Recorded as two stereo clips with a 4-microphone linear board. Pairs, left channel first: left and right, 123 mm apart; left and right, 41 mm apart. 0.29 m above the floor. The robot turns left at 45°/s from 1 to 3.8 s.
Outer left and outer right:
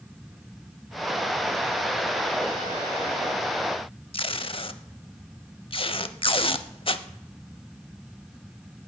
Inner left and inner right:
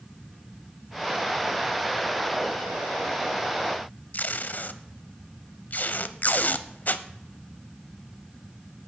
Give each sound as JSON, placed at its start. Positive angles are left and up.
{"t": 4.1, "sound": "tape being pulled", "side_deg": 50, "distance_m": 0.6}